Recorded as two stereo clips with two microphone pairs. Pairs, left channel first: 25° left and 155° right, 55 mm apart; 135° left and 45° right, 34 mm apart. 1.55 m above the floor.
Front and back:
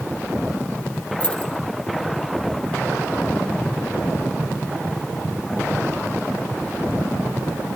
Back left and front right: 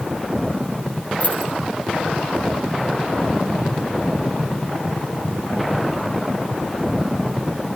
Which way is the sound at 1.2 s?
95° left.